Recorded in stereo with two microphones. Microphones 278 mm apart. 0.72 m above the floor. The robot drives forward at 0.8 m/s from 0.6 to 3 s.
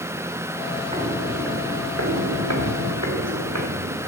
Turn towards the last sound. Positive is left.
turn(degrees=-70)  # may be behind; listen again after turning